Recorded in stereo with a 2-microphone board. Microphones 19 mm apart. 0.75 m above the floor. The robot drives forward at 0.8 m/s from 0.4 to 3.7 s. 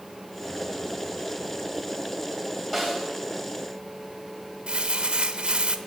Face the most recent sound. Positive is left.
turn(degrees=-55)  # may be behind; listen again after turning